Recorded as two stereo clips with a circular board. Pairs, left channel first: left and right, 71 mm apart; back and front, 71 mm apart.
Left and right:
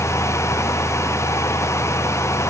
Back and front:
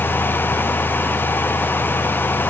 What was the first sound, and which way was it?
Only background noise.